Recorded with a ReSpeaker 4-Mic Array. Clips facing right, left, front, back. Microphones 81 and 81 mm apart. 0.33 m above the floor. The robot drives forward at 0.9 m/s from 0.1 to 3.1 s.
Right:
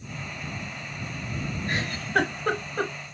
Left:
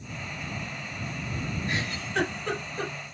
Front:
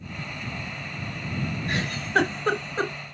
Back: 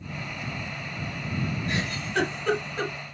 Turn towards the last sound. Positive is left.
turn(degrees=-65)